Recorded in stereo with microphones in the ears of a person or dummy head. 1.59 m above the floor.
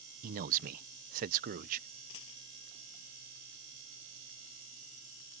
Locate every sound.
0.2 s a man speaking: 50° right (ahead or behind)
2.1 s a dropped coin: 80° left